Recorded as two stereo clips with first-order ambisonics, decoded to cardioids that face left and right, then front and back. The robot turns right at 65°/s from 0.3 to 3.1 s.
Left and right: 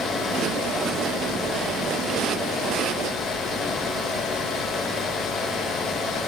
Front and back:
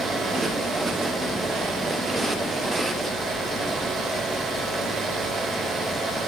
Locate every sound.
Only background noise.